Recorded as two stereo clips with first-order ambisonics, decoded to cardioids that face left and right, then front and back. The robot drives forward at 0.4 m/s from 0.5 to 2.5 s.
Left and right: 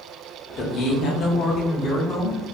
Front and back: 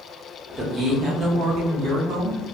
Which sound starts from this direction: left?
A man speaking, at 0.6 s.